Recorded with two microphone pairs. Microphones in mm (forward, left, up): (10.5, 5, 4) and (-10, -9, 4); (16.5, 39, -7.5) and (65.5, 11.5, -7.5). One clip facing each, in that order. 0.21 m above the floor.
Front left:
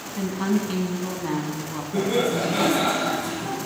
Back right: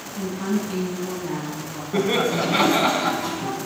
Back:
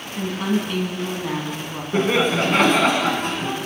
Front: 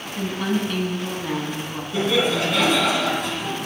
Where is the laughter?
175° right, 1.5 m.